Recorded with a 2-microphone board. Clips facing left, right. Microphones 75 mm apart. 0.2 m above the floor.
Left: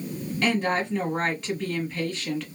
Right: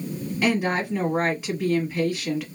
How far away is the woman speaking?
About 1.1 m.